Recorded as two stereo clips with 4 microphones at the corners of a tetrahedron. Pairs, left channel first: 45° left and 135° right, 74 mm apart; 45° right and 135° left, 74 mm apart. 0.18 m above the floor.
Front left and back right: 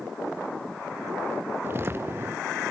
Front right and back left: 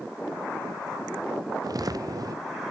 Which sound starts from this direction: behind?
Footsteps, at 1.6 s.